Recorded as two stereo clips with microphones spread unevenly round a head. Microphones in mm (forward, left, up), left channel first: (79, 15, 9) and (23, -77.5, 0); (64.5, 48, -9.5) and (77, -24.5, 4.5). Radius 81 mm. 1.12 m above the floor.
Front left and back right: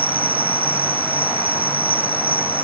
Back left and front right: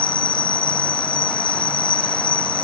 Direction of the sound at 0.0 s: 155° left.